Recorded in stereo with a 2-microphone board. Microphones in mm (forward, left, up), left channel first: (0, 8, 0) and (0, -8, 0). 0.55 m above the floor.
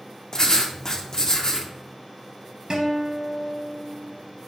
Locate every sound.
0.3 s writing: 40° left (ahead or behind), 0.6 m
2.7 s a guitar: 60° right (ahead or behind), 0.7 m